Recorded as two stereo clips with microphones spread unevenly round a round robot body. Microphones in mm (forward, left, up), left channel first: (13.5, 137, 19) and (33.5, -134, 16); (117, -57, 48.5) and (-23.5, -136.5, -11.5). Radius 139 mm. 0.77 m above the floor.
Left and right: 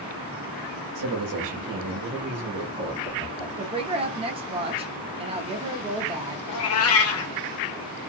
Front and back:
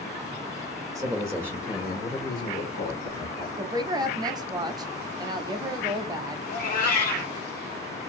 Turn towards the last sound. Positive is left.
turn(degrees=60)